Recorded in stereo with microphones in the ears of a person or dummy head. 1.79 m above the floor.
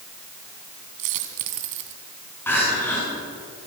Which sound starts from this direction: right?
A dropped coin, at 1.0 s.